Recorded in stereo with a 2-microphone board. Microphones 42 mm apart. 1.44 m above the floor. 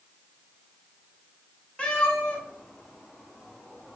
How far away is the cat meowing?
About 1.1 m.